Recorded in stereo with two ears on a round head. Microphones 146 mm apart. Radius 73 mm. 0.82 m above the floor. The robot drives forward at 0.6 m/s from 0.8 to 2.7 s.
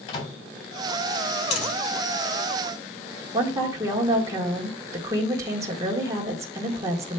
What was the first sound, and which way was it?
A microwave, 35° left (ahead or behind).